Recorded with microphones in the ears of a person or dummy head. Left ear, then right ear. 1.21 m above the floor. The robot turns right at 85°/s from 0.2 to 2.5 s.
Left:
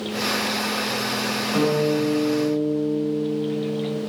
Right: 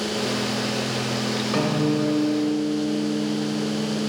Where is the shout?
I don't hear a shout.